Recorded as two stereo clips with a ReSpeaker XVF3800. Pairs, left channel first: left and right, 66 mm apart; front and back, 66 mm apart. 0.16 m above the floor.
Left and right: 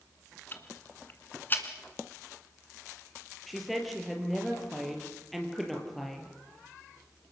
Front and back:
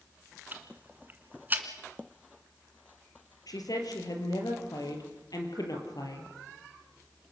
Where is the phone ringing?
No phone ringing in this recording.